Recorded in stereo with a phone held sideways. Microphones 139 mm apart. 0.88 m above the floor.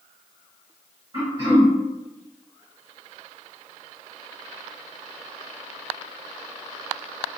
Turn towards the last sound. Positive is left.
turn(degrees=-25)  # may be behind; listen again after turning